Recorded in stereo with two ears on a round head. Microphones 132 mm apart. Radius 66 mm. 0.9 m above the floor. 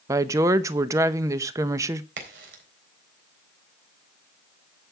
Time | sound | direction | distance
0.1 | a woman speaking | 20° right (ahead or behind) | 0.6 m
2.2 | a crack | 85° right | 3.5 m